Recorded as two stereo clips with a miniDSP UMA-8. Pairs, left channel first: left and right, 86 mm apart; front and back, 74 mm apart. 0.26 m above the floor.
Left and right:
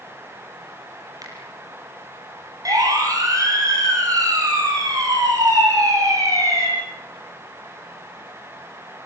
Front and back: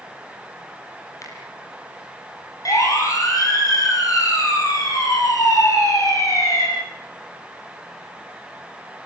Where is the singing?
No singing in this recording.